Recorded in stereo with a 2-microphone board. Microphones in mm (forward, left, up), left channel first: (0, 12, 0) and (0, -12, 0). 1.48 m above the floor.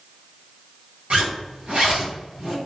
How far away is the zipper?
About 1.4 m.